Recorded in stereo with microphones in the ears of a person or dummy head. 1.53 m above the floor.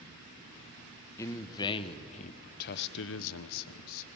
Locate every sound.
1.2 s a man speaking: 15° left (ahead or behind), 1.2 m; by 4.1 s 70° left (ahead or behind), 1.0 m